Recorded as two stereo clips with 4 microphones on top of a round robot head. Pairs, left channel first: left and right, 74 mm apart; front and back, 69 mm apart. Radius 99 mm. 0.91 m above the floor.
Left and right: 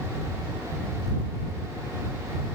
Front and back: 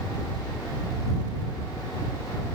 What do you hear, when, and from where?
Only background noise.